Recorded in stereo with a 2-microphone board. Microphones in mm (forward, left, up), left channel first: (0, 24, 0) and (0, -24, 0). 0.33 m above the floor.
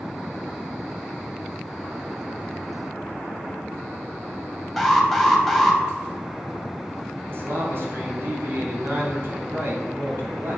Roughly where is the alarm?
Centre.